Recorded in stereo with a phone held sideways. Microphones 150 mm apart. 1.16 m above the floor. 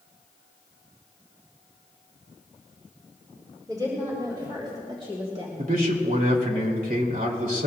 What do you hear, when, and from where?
3.7 s a woman speaking: 25° right (ahead or behind), 4.5 m; by 5.5 s 45° right (ahead or behind), 2 m
5.6 s a man speaking: 75° right (ahead or behind), 2.5 m